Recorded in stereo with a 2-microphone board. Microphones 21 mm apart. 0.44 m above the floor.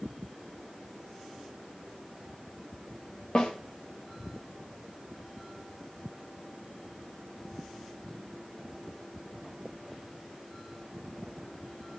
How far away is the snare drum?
About 7.5 m.